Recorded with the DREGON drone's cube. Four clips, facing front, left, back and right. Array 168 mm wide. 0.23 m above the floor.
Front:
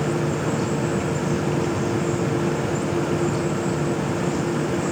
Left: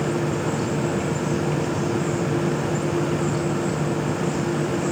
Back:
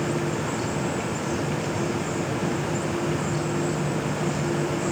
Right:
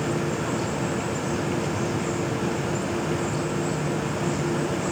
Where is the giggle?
No giggle in this recording.